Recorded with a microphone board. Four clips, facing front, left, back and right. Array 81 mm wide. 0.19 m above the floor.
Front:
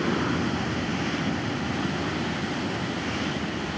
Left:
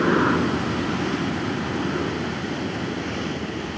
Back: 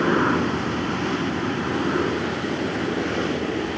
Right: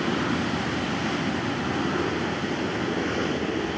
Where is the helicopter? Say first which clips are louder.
Left 6 dB, back 6 dB; 125° left; by 3.8 s 150° right.